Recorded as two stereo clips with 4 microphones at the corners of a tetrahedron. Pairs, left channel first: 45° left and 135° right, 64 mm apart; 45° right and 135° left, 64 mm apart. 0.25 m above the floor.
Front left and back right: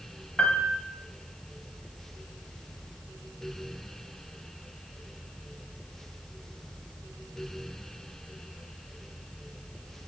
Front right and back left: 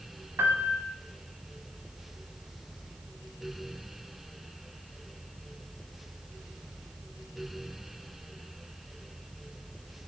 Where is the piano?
115° left, 0.5 m.